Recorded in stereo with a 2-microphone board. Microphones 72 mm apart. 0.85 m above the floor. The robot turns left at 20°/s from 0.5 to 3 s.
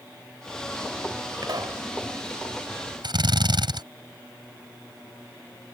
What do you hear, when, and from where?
1.4 s a pop: 65° right (ahead or behind); by 1.8 s 55° right (ahead or behind)
3.0 s a drill: 85° right